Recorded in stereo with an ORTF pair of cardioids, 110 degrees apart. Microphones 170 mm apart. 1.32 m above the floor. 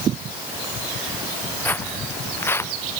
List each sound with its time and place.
1.6 s footsteps: 10° left; by 2.7 s 15° left